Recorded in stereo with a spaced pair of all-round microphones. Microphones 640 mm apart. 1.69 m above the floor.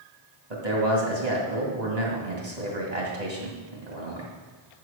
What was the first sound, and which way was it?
A man speaking, 75° right (ahead or behind).